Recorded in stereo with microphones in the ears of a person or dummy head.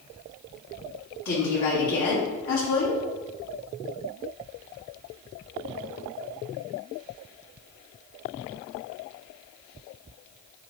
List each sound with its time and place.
1.2 s a woman speaking: 55° left (ahead or behind), 1.4 m